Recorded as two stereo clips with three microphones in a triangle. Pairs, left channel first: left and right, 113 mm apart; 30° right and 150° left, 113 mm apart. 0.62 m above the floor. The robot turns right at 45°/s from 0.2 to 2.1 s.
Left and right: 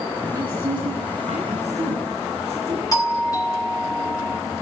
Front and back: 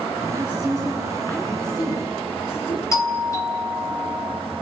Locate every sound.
0.3 s a woman speaking: 145° right, 9 m; by 2.8 s 65° right, 9 m
2.9 s a doorbell: 35° left, 3.5 m